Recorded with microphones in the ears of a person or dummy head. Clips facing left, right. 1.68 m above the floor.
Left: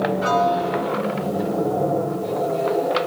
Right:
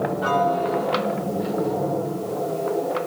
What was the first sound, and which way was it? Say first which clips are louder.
A piano: right 1 dB; 30° left (ahead or behind).